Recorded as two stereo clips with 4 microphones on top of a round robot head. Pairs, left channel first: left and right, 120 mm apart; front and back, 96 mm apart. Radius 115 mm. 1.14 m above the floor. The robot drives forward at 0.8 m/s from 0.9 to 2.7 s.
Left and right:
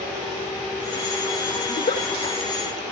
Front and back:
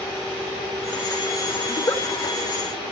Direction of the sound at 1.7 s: 55° left.